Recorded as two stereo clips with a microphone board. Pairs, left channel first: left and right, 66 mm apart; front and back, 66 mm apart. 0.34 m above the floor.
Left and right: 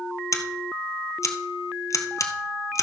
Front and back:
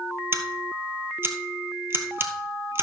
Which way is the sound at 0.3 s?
130° left.